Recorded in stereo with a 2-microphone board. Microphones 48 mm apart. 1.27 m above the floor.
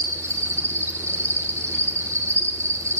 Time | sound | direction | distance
0.0 | an insect | 75° right (ahead or behind) | 2.5 m